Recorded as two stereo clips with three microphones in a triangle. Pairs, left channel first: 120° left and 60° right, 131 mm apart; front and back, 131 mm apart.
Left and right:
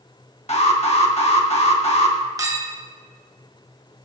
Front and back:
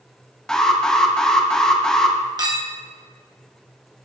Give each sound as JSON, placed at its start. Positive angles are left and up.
{"t": 0.5, "sound": "an alarm", "azimuth_deg": 85, "distance_m": 1.3}
{"t": 2.4, "sound": "a clink", "azimuth_deg": -120, "distance_m": 1.2}